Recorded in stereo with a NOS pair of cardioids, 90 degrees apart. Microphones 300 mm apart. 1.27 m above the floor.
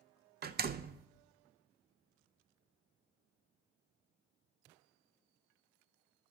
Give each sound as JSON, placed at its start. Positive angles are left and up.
{"t": 0.4, "sound": "a door slam", "azimuth_deg": -35, "distance_m": 0.6}